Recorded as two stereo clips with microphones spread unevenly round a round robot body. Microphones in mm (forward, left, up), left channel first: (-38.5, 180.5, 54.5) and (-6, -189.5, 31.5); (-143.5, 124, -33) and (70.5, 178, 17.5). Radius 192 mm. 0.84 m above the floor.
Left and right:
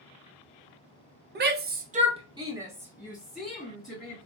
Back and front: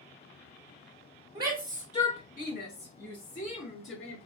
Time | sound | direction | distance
1.4 | a shout | 60° right | 0.8 m